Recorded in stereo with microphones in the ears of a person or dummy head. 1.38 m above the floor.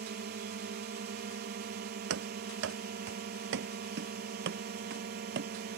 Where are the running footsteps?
70° right (ahead or behind); by 5.8 s 55° right (ahead or behind).